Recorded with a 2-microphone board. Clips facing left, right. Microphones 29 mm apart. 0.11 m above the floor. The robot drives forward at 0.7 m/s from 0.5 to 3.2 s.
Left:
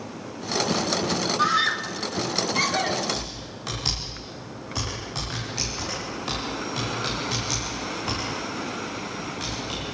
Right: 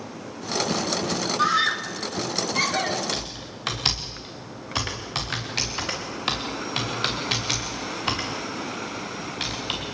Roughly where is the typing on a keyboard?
Right.